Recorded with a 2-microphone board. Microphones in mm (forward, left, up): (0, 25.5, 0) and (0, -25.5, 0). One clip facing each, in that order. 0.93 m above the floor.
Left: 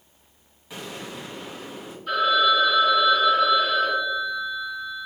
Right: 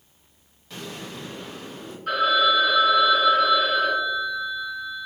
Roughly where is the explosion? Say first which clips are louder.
Left 1 dB; centre.